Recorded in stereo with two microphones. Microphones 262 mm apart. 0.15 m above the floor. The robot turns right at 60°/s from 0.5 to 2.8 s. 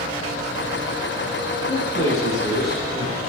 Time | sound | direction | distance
1.7 | a man speaking | 75° left | 3 m